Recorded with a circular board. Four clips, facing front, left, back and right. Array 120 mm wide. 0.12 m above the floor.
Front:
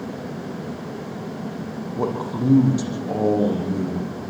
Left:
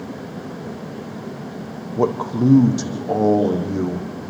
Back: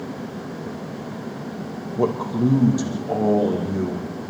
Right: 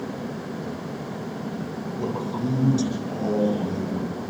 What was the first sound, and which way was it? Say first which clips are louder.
A man speaking: left 9 dB, back 4 dB; 85° left.